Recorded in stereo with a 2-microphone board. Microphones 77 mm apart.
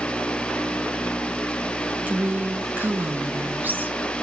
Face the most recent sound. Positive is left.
turn(degrees=-25)  # may be behind; listen again after turning